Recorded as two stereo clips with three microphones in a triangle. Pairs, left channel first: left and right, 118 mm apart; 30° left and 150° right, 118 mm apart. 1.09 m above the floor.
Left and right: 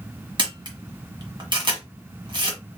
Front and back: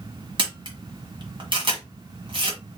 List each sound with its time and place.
0.4 s a camera shutter: 125° right, 1.5 m